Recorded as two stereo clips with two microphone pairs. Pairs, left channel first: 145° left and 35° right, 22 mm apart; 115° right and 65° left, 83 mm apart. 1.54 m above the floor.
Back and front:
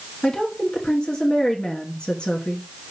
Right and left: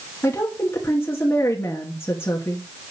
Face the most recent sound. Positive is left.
turn(degrees=180)